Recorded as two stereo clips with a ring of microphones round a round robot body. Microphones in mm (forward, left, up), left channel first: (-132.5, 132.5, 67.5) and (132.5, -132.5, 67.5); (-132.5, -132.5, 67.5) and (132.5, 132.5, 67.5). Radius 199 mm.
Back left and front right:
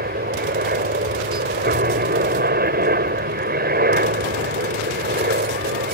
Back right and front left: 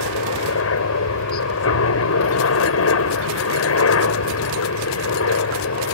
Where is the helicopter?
100° right.